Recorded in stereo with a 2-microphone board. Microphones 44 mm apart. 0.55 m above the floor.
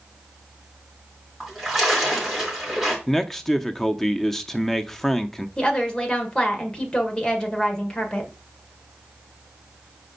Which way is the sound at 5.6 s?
20° left (ahead or behind).